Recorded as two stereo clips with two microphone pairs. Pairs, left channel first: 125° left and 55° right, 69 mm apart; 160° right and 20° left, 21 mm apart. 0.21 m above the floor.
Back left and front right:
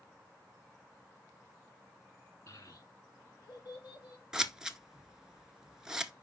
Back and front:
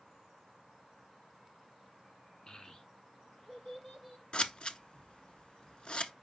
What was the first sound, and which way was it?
A child speaking, 160° left.